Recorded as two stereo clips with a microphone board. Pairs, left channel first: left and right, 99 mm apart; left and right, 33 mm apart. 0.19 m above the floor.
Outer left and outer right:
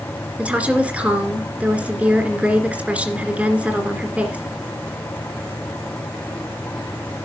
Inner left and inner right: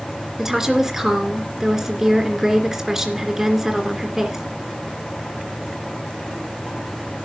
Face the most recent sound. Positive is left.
turn(degrees=-15)  # may be behind; listen again after turning